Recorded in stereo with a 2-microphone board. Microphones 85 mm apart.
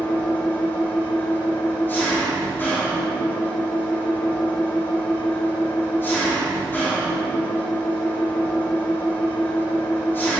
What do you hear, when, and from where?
0.0 s an engine running: 25° left (ahead or behind), 2.5 m